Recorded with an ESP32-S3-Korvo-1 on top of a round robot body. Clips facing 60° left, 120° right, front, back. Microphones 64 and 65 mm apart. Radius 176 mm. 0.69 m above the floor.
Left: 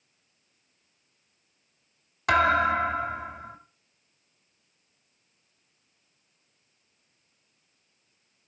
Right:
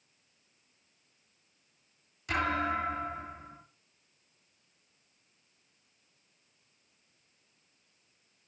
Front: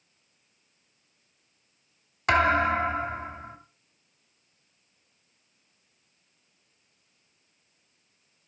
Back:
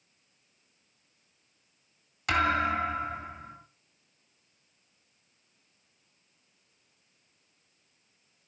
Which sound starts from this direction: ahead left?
A thud, at 2.3 s.